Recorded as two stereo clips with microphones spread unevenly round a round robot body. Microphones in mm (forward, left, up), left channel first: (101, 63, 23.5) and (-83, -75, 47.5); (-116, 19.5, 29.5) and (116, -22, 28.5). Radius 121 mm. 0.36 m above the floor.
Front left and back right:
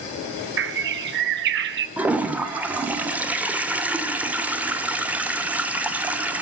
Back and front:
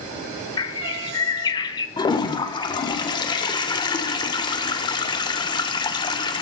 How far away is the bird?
About 0.7 m.